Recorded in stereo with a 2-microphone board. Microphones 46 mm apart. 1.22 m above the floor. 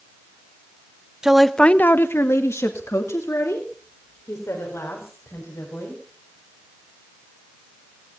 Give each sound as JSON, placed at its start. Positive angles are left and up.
{"t": 1.2, "sound": "a woman speaking", "side_deg": -15, "distance_m": 0.9}